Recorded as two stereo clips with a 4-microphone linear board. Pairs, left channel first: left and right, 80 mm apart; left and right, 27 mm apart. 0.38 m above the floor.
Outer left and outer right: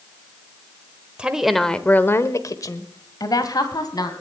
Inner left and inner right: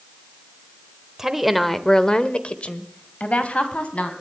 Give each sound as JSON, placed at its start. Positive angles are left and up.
{"t": 1.2, "sound": "a woman speaking", "side_deg": -15, "distance_m": 1.1}